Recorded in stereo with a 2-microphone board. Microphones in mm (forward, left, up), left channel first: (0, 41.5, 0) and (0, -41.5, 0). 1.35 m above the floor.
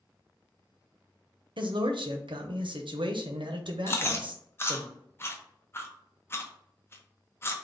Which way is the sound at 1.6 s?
75° right (ahead or behind).